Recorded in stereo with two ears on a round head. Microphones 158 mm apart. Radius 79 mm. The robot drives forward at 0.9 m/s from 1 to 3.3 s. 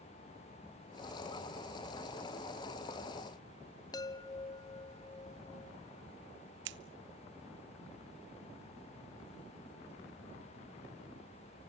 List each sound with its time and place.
3.9 s a chime: 20° left (ahead or behind), 0.6 m
6.7 s scissors: 75° right (ahead or behind), 0.9 m